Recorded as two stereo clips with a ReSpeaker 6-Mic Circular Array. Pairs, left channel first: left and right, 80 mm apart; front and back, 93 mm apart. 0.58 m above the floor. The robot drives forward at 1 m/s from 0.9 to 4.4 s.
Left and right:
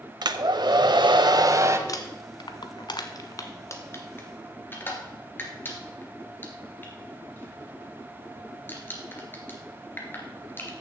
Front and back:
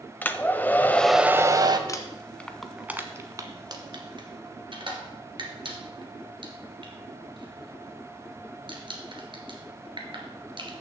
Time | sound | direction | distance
0.2 | a hair dryer | 70° right | 0.6 m
1.9 | crumpling | 50° left | 1.2 m